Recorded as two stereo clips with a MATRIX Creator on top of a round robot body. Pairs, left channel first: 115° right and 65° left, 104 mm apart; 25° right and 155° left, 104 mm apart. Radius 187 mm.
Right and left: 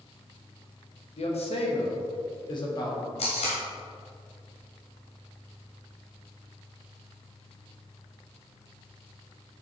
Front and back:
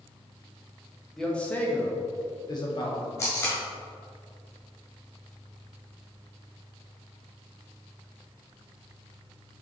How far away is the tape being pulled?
About 1.8 m.